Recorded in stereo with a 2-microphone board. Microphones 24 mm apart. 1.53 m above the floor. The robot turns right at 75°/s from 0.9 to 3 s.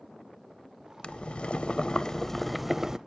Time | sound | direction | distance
1.0 | boiling | 65° left | 0.6 m